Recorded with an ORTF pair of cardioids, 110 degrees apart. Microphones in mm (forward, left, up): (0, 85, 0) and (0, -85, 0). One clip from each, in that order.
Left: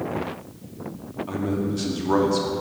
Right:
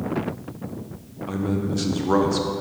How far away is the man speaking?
About 0.8 m.